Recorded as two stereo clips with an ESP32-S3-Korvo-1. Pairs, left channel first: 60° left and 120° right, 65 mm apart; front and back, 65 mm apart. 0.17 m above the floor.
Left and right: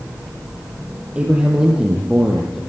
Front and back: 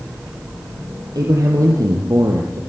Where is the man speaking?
170° left, 5 m; by 2.6 s 155° left, 5 m.